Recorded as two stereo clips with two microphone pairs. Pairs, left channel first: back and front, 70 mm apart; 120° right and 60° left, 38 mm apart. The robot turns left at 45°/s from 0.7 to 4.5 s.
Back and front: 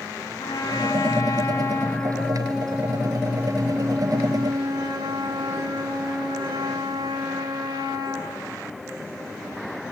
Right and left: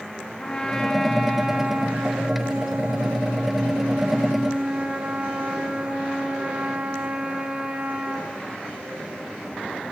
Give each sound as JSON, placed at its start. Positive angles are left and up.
{"t": 0.4, "sound": "a trumpet", "azimuth_deg": 170, "distance_m": 4.0}